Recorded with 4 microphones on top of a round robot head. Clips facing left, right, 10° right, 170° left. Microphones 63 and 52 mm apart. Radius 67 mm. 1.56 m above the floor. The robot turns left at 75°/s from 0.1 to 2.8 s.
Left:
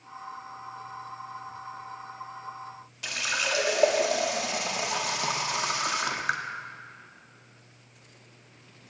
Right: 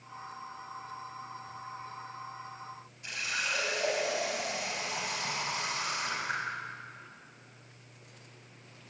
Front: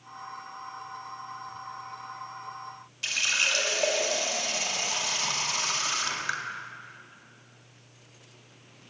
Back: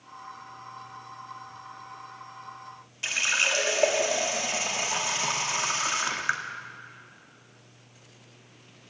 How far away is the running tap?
About 1.9 m.